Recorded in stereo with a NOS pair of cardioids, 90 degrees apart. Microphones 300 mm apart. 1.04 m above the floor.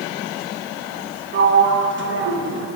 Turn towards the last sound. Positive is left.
turn(degrees=-40)